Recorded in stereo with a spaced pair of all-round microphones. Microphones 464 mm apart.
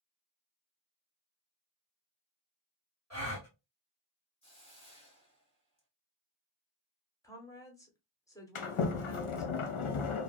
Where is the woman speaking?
5° left (ahead or behind), 0.9 m.